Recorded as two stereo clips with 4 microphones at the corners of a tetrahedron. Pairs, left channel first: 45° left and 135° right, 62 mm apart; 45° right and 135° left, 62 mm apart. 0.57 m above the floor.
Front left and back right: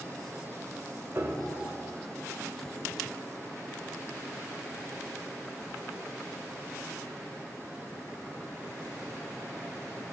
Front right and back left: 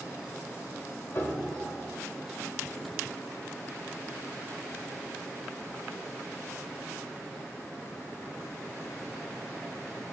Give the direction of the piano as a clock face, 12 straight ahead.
3 o'clock.